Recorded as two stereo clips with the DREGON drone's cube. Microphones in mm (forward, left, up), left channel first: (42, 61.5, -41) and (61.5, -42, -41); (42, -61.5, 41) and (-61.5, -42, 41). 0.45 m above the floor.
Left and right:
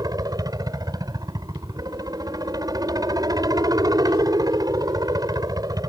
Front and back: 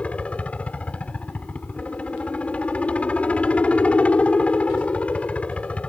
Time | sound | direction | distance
0.0 | a helicopter | 80° right | ?